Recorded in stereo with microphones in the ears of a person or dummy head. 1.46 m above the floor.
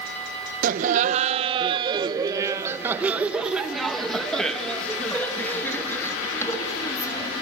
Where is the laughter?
50° right (ahead or behind), 1.6 m; by 7.3 s 15° left (ahead or behind), 3.5 m.